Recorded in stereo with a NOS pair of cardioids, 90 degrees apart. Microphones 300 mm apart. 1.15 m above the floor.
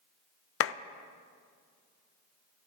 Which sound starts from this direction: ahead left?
A clap, at 0.6 s.